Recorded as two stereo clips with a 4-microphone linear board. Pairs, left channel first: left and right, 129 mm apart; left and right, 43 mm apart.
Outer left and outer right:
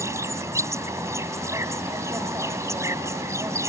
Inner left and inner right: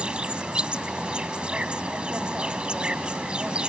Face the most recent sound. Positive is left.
turn(degrees=-25)  # may be behind; listen again after turning